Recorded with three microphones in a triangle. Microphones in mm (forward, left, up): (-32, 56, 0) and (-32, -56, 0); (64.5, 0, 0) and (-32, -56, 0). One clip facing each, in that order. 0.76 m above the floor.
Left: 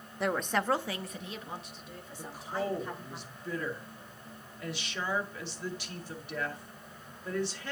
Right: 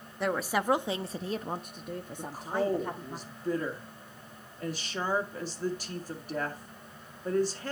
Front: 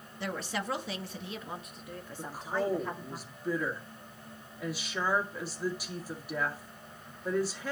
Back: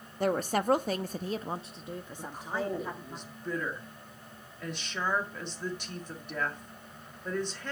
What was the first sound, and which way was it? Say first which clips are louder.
A woman speaking: right 1 dB, back 8 dB; straight behind.